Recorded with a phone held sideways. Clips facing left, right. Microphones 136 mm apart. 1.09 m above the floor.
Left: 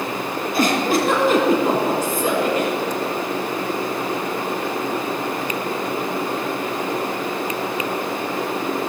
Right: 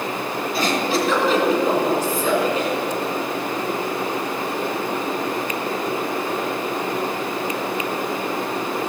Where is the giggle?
55° left (ahead or behind), 2.5 m.